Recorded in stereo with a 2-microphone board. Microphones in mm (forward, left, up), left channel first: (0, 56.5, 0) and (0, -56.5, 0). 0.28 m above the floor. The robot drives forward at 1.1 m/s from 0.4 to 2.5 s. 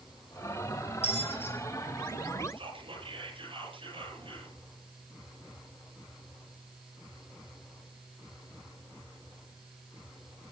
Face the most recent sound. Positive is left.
turn(degrees=-55)  # may be behind; listen again after turning